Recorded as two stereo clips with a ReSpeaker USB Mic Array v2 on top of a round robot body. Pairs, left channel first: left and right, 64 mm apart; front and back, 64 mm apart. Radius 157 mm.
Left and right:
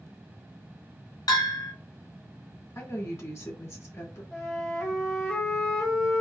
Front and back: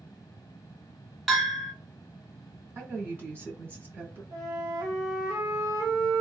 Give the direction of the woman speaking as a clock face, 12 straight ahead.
8 o'clock.